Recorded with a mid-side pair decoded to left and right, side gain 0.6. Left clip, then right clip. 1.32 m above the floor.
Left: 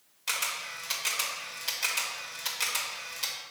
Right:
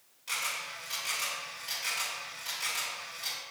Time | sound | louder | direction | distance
0.3 | a camera shutter | left 2 dB | 55° left | 2 m